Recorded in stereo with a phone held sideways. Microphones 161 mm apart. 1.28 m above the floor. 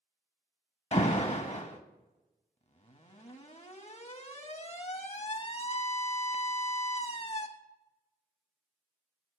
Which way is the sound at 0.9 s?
40° left (ahead or behind).